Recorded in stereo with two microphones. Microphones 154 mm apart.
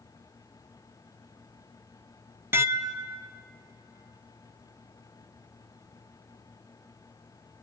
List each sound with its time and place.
2.5 s dishes clattering: 15° right (ahead or behind), 0.6 m